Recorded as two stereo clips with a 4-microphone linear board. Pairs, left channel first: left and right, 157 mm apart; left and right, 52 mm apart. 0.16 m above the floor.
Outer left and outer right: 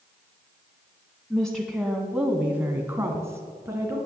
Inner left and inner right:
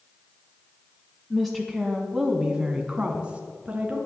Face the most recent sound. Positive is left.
turn(degrees=-20)  # may be behind; listen again after turning